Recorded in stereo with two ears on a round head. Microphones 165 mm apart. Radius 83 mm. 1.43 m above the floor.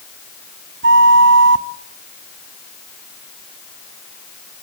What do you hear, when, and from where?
0.8 s a flute: 60° right (ahead or behind), 0.8 m